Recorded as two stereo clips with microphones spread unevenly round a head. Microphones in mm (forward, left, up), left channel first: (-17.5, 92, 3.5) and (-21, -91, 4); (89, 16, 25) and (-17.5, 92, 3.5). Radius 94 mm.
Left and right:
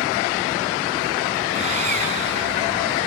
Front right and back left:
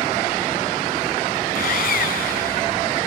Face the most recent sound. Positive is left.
turn(degrees=-30)